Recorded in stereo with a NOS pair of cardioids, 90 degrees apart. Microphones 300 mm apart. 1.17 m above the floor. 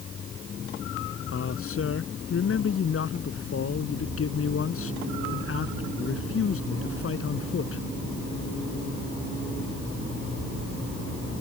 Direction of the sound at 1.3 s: 50° left.